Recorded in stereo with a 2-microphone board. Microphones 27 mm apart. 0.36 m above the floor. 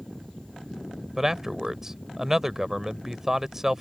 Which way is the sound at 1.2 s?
15° right (ahead or behind).